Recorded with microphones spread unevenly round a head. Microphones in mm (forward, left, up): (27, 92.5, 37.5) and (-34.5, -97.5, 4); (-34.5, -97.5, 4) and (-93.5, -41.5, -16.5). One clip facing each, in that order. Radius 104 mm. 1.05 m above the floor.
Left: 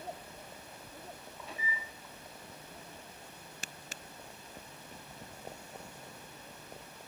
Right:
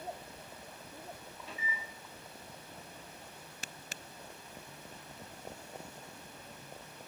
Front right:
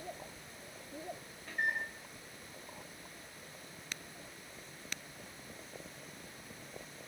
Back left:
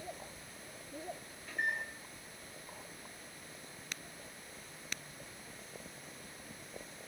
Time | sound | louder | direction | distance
1.5 | a microwave | left 1 dB, front right 1 dB | 75° right | 1.2 m